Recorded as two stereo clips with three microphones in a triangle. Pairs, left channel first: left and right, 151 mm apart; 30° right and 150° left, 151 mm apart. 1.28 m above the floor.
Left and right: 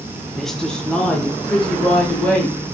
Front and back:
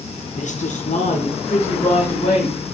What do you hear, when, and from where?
0.4 s a woman speaking: straight ahead, 0.6 m; by 2.6 s 10° left, 2.5 m